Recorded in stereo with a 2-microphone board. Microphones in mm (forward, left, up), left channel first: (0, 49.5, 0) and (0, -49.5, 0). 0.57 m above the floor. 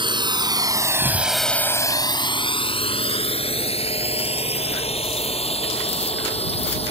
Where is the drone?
55° right (ahead or behind); by 6.9 s 85° left.